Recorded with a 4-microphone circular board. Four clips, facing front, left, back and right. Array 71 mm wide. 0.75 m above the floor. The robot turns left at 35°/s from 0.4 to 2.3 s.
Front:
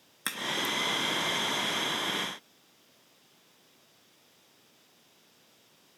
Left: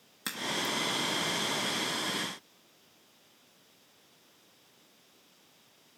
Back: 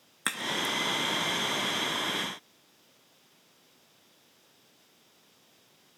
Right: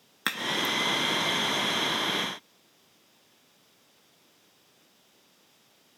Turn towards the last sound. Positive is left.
turn(degrees=180)